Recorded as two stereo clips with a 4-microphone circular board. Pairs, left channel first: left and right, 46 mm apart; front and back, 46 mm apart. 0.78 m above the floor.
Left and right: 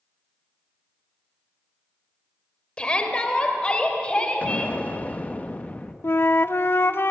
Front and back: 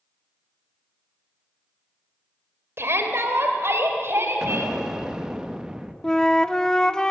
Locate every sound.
2.8 s a shout: 155° left, 3 m
4.4 s an explosion: 115° left, 1.1 m
6.0 s a flute: 75° left, 0.5 m